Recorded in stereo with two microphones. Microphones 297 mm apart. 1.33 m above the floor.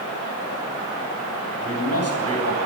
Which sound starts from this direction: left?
A man speaking, at 1.6 s.